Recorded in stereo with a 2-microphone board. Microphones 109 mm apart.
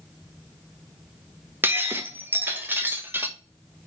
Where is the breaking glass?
20° right (ahead or behind), 0.7 m.